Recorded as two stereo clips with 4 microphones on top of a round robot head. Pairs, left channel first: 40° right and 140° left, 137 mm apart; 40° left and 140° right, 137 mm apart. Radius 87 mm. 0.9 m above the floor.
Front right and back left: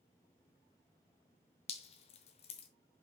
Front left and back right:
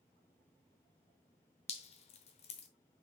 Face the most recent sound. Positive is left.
turn(degrees=0)